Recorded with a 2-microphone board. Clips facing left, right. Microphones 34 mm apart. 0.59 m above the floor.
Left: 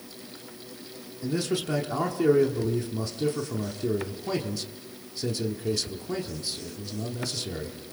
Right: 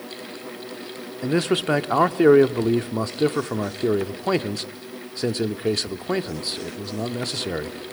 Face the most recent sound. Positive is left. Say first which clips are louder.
# right 7 dB
turn(degrees=-55)  # may be behind; listen again after turning